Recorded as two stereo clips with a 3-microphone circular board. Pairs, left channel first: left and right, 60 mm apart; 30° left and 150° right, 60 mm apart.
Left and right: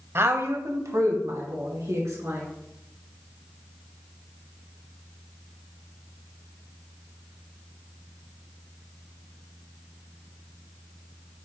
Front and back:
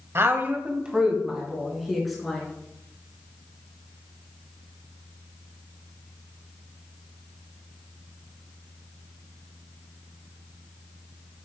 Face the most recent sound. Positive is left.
turn(degrees=-60)